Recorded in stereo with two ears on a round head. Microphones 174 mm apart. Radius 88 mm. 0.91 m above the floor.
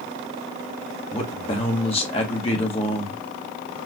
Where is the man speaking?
30° left (ahead or behind), 1.2 m.